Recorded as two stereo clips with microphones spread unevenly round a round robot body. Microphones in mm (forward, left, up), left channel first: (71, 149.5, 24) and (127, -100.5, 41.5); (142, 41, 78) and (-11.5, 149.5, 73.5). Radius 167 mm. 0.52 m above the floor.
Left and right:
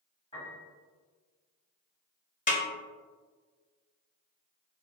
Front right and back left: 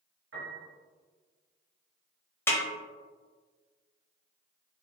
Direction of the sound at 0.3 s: Straight behind.